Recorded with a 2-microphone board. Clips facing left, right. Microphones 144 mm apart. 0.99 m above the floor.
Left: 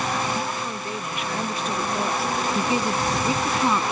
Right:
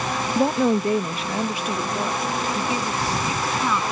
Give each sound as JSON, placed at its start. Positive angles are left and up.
{"t": 0.3, "sound": "a woman speaking", "side_deg": -70}
{"t": 2.5, "sound": "a woman speaking", "side_deg": 20}